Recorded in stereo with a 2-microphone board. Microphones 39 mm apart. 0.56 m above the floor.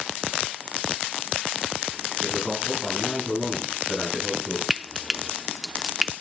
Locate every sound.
2.2 s a man speaking: 10° right (ahead or behind), 7.5 m; by 4.6 s 5° left (ahead or behind), 6.5 m
4.7 s frying: 5° right (ahead or behind), 0.5 m